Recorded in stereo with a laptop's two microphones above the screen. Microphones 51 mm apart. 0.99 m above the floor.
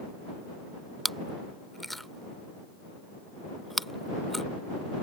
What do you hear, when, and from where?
1.1 s chewing: centre (ahead or behind)